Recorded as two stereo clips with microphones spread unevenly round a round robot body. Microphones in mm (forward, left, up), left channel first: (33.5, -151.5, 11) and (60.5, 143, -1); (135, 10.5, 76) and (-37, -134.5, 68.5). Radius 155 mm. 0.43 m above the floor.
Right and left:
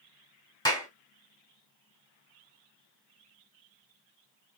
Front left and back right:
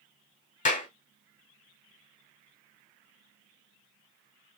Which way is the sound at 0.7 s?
15° right.